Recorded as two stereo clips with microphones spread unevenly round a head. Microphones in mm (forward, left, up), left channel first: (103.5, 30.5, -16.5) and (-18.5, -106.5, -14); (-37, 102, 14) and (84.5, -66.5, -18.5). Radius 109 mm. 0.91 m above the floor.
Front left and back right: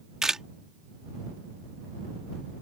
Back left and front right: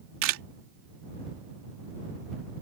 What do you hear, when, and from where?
0.2 s a camera shutter: 45° right